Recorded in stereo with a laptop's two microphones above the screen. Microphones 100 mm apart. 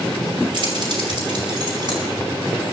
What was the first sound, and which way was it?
Keys jangling, 50° right (ahead or behind).